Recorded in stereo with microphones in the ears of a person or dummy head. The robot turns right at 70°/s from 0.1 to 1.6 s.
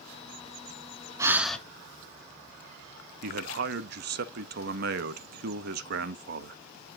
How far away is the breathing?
About 1.0 m.